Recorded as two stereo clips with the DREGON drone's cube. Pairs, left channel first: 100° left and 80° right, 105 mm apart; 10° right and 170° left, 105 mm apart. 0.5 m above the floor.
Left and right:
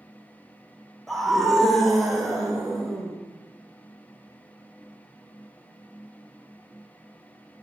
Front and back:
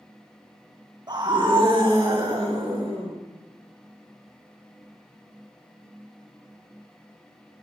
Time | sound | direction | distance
1.1 | a scream | 170° right | 0.8 m